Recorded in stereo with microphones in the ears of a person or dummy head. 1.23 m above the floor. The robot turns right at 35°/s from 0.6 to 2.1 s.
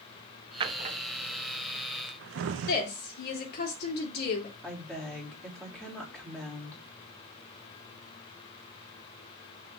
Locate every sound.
0.6 s a drawer: 25° right (ahead or behind), 0.6 m; by 2.7 s 65° right (ahead or behind), 0.6 m
2.7 s a woman speaking: 50° left (ahead or behind), 2.5 m
4.6 s a woman speaking: 5° left (ahead or behind), 3 m